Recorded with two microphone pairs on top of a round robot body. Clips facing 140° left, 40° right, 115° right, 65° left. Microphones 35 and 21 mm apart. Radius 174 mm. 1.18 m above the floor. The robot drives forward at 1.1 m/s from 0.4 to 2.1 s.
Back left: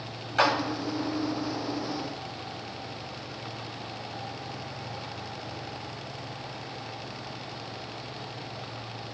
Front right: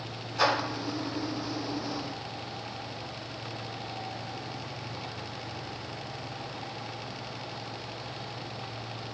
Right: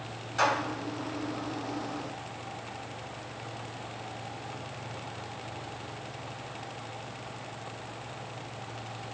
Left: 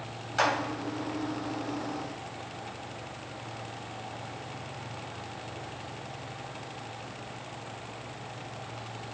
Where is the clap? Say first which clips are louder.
Back left 2 dB, even; 125° left, 3.5 m; by 0.5 s 130° left, 3.5 m.